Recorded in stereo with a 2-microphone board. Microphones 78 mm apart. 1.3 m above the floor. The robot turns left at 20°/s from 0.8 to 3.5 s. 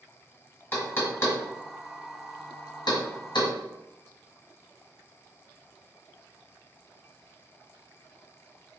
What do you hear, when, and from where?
0.7 s knocking: 25° left (ahead or behind), 1.3 m; by 3.5 s 75° left (ahead or behind), 1.3 m